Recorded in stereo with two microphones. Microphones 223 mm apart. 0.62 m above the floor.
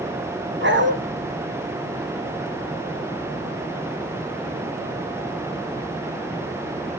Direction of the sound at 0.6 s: 55° right (ahead or behind).